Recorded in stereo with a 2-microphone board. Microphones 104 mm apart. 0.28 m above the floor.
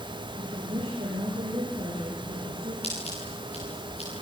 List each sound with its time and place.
0.3 s a woman speaking: 70° right (ahead or behind), 9 m
2.8 s scissors: 80° left, 9.5 m